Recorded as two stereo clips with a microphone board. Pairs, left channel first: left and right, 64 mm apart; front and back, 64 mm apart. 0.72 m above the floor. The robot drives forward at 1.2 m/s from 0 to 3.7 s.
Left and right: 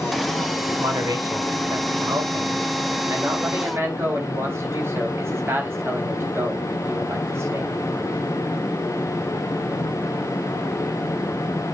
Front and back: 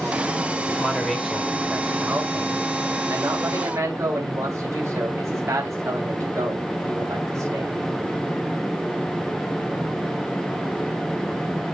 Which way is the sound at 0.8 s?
75° right.